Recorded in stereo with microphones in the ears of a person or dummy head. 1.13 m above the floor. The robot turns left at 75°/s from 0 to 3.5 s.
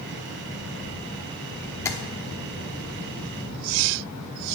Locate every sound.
1.9 s tapping: 15° left (ahead or behind), 1.1 m; by 2.0 s 5° left (ahead or behind), 1.1 m